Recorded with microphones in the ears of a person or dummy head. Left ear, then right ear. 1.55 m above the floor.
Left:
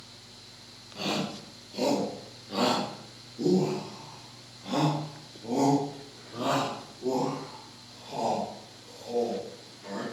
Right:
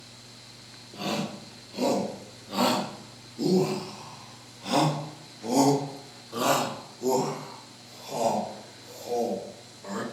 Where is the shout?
5° left (ahead or behind), 3.5 m; by 10.0 s 75° right (ahead or behind), 4.5 m.